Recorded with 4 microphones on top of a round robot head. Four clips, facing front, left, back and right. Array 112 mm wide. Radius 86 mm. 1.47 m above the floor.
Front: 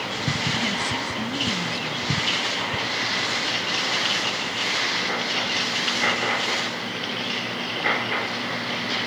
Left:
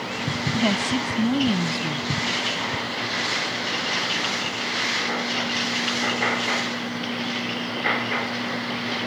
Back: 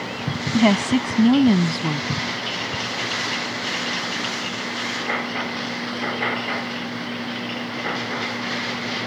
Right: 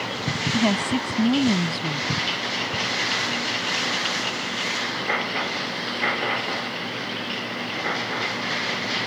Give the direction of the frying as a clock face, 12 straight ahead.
No frying in this recording.